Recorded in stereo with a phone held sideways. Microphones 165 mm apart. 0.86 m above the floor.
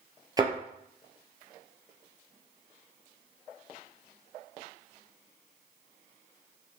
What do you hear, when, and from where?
0.4 s a thud: 20° right (ahead or behind), 1.9 m